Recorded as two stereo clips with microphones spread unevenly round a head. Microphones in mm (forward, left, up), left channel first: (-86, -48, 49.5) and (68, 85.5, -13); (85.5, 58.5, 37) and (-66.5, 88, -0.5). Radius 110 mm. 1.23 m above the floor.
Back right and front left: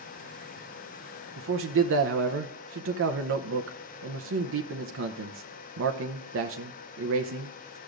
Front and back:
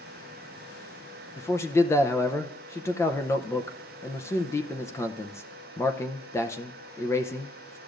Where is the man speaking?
65° left, 0.7 m.